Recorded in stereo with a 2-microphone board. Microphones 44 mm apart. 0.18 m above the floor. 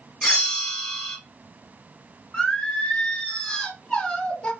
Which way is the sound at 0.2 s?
15° left (ahead or behind).